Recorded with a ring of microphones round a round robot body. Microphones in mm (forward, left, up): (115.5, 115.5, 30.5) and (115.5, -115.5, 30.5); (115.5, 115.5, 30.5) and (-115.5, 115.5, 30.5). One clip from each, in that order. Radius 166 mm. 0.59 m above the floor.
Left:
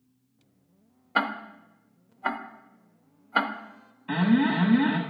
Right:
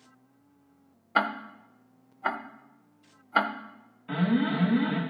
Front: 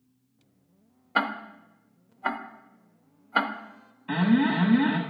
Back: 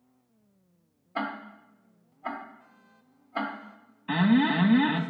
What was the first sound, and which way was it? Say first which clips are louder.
Ticking: even, front 6 dB; 10° right.